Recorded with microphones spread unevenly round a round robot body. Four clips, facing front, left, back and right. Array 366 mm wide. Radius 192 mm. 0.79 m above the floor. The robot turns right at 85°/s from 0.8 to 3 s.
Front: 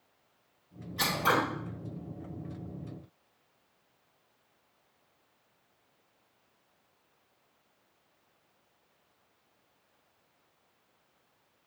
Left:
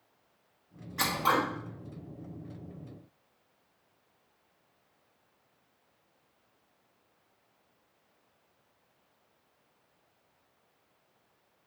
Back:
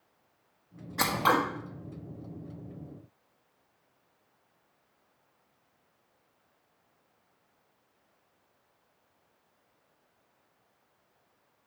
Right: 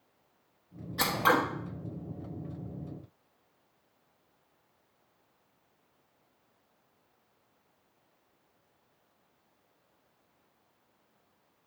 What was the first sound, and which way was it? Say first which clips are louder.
Scissors: right 2 dB, back 3 dB; straight behind.